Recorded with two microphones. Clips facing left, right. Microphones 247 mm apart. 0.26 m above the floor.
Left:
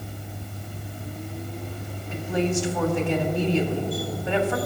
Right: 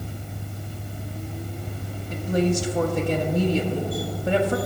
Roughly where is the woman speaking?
Right.